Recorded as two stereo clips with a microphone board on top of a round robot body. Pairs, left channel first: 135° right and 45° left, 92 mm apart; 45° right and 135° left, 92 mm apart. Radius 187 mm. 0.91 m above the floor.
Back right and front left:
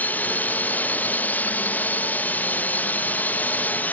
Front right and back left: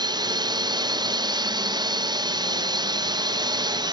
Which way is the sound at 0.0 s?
160° left.